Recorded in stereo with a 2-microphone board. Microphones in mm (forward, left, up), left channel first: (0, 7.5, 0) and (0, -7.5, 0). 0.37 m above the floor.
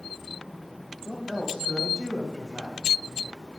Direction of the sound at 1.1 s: 25° right (ahead or behind).